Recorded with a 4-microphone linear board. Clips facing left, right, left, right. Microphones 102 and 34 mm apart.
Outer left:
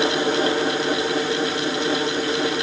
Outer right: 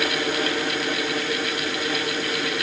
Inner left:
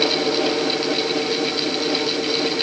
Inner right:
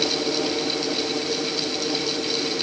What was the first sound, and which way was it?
Only background noise.